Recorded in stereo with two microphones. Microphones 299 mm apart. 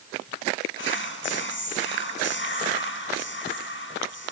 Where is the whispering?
40° left (ahead or behind), 1.7 m.